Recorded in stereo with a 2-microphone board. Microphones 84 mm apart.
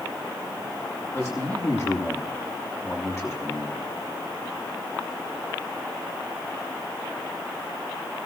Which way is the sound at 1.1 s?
35° left (ahead or behind).